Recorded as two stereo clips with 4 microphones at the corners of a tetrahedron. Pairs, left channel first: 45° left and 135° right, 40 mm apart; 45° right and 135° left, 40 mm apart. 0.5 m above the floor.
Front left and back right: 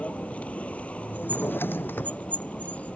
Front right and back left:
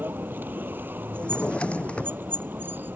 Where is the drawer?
15° left.